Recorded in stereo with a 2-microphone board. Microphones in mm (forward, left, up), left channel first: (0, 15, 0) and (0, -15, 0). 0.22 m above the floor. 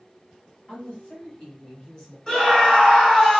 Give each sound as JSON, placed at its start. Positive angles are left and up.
{"t": 0.7, "sound": "a woman speaking", "side_deg": 30, "distance_m": 1.4}
{"t": 2.3, "sound": "a scream", "side_deg": 5, "distance_m": 1.8}